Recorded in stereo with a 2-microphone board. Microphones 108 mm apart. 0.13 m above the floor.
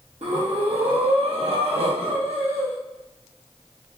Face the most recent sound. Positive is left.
turn(degrees=-70)  # may be behind; listen again after turning